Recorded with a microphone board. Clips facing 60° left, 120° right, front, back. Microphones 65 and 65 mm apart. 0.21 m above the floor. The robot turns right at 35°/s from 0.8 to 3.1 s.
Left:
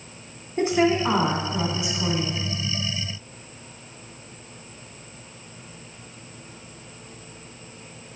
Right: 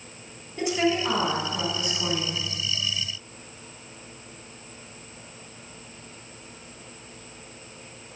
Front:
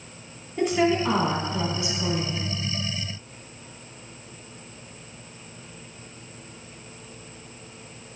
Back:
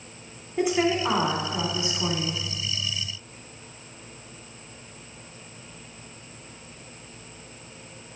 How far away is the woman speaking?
About 2 m.